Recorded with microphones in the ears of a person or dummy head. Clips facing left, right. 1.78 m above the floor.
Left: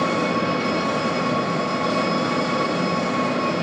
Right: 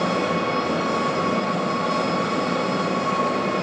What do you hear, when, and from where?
0.0 s an engine running: 40° left (ahead or behind), 2 m